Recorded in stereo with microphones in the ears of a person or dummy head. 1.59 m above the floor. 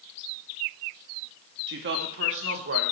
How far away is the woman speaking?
About 0.8 m.